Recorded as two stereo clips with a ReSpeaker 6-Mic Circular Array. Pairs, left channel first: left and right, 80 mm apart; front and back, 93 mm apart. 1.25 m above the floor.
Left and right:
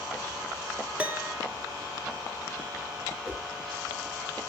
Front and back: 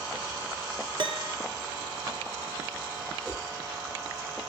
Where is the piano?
160° right, 0.8 m.